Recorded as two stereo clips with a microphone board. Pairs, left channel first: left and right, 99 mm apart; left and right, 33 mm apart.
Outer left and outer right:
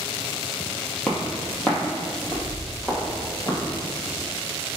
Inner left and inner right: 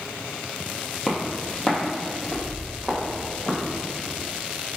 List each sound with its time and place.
1.1 s footsteps: 10° left (ahead or behind), 1.5 m; by 3.6 s centre (ahead or behind), 2.5 m